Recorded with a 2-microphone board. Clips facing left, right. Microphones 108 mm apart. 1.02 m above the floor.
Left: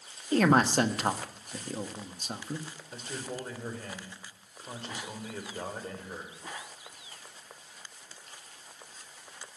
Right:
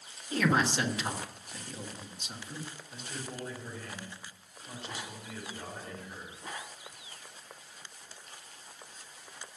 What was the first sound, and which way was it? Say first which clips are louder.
A man speaking: left 5 dB; 50° left (ahead or behind).